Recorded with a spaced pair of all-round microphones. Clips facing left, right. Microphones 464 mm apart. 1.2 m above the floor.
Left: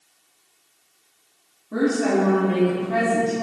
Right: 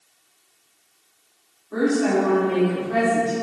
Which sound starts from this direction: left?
A woman speaking, at 1.7 s.